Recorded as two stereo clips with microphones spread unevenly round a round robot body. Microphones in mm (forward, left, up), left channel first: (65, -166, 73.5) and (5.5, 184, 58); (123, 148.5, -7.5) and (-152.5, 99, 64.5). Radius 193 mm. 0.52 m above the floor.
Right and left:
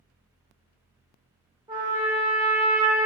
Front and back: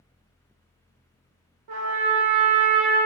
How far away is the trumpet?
About 0.6 m.